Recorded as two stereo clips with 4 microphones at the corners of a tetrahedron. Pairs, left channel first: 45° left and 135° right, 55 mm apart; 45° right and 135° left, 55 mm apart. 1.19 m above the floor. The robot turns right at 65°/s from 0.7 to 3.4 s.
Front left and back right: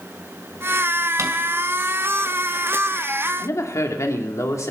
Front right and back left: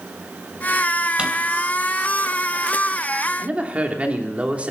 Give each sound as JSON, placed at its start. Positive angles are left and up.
{"t": 1.2, "sound": "a drawer", "azimuth_deg": -155, "distance_m": 2.5}
{"t": 3.4, "sound": "a woman speaking", "azimuth_deg": 70, "distance_m": 3.0}